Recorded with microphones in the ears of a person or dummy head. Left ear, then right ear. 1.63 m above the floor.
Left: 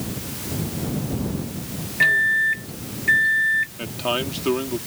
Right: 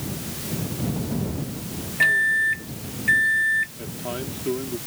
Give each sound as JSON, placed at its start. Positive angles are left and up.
{"t": 2.0, "sound": "a microwave", "side_deg": 0}
{"t": 3.8, "sound": "a man speaking", "side_deg": 55}